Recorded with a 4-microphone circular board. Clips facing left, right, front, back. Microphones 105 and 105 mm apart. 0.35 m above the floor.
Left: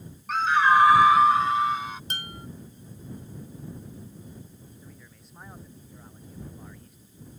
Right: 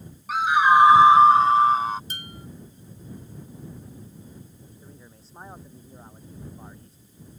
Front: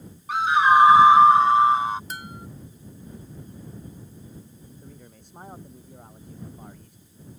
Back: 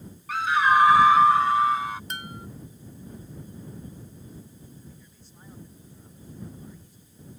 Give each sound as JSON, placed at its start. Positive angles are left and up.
{"t": 0.3, "sound": "a scream", "azimuth_deg": -20}
{"t": 2.1, "sound": "dishes clattering", "azimuth_deg": 85}
{"t": 4.8, "sound": "a man speaking", "azimuth_deg": -30}